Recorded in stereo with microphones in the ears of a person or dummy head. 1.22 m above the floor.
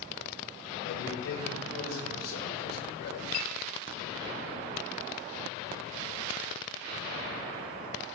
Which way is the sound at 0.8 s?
85° left.